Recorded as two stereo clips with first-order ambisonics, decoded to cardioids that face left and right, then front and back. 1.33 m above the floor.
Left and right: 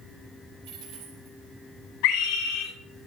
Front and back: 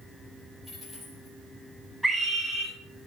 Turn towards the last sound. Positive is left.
turn(degrees=105)